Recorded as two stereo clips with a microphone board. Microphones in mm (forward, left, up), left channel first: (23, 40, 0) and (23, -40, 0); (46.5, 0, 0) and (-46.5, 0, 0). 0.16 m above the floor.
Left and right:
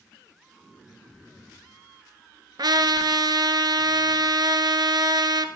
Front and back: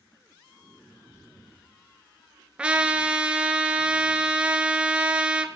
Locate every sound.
2.6 s a trumpet: 105° right, 0.8 m